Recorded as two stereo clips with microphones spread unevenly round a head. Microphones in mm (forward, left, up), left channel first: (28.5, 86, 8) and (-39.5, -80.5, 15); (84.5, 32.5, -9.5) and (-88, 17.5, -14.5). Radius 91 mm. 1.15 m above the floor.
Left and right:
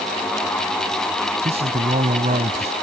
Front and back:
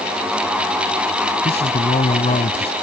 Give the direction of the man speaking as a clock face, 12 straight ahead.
2 o'clock.